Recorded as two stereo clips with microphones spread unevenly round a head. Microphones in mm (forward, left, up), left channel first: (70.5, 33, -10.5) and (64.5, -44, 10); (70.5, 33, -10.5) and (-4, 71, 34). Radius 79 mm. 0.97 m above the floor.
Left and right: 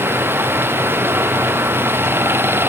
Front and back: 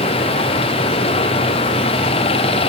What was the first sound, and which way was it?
Running water, 35° right.